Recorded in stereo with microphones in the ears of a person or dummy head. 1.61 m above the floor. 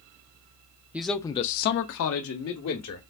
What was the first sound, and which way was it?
A man speaking, 5° right (ahead or behind).